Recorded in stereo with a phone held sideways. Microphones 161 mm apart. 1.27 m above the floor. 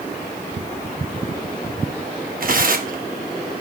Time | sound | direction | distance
0.6 | ticking | 70° right (ahead or behind) | 0.8 m
2.4 | tearing paper | 60° right (ahead or behind) | 0.9 m